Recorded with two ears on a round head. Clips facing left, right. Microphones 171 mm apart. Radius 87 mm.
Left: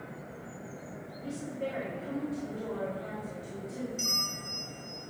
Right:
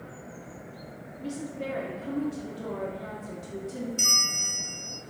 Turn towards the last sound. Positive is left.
turn(degrees=-65)  # may be behind; listen again after turning